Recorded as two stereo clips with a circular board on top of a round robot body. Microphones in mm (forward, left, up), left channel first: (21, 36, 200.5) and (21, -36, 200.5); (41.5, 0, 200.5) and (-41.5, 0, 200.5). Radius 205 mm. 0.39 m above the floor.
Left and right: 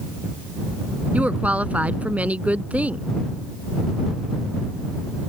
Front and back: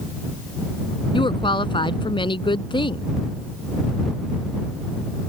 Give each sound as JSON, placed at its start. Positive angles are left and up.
{"t": 1.1, "sound": "a woman speaking", "azimuth_deg": -20}